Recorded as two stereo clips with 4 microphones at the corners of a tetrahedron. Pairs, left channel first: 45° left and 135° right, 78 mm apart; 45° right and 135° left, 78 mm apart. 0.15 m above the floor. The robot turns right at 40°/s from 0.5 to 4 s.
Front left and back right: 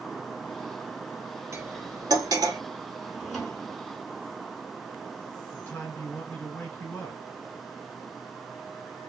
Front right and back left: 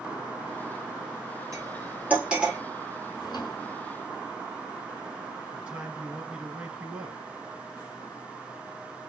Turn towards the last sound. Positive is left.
turn(degrees=80)